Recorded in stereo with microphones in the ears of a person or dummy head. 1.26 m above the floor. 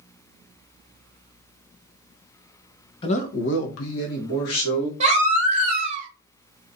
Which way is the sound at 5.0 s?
40° right (ahead or behind).